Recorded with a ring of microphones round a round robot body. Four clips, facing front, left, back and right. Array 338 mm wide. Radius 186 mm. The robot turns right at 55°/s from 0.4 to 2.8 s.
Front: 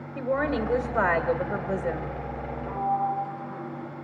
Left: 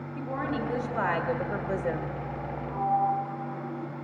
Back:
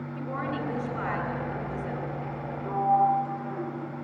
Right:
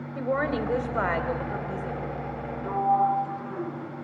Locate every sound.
0.1 s a woman speaking: 55° right, 1.8 m; by 2.5 s 65° left, 1.8 m
2.6 s a sliding door: 95° right, 2.5 m; by 3.9 s 85° right, 2.5 m